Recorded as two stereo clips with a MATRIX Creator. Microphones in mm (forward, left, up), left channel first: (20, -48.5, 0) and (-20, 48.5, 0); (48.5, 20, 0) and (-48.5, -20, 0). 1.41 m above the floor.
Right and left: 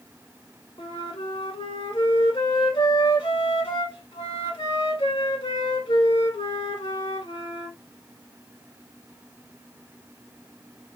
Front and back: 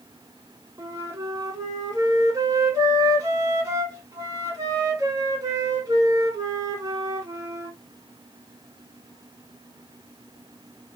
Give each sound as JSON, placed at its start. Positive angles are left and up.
{"t": 0.8, "sound": "a flute", "azimuth_deg": -105, "distance_m": 1.4}